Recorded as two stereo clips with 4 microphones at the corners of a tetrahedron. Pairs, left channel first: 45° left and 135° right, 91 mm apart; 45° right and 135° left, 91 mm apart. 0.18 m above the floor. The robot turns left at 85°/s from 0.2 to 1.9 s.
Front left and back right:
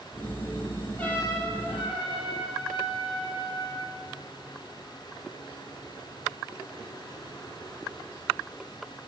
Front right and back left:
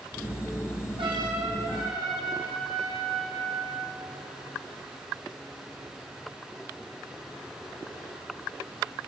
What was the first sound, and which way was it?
A trumpet, 120° left.